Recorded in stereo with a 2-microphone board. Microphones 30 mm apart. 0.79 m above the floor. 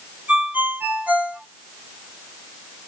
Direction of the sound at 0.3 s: 80° right.